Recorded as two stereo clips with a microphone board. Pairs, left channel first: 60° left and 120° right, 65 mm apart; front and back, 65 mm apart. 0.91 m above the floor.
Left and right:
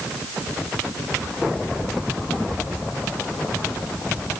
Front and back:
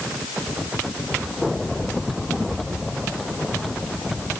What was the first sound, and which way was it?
Only background noise.